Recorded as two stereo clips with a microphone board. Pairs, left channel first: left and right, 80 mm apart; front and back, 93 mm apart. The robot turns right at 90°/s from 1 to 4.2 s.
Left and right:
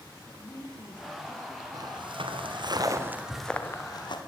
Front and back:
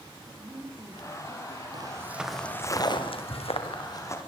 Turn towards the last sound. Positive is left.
turn(degrees=70)